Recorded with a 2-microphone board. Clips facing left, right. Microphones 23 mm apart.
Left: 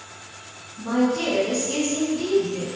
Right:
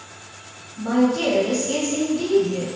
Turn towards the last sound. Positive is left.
turn(degrees=-60)  # may be behind; listen again after turning